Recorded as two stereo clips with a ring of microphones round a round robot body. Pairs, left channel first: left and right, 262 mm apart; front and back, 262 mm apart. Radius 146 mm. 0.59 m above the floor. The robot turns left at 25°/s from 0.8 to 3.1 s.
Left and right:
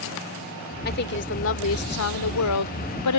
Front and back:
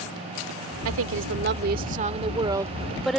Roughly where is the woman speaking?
Behind left.